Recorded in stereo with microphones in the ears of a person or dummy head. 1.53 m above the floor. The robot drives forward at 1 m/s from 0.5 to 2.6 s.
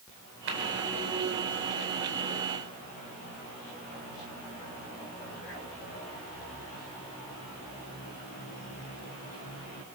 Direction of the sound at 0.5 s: 70° right (ahead or behind).